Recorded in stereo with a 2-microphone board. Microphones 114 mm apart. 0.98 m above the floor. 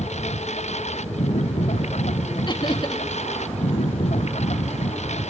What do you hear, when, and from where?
0.0 s a lawn mower: 75° left (ahead or behind)
2.5 s laughter: 40° left (ahead or behind)